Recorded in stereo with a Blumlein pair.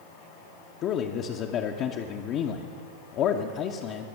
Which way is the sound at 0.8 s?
35° left.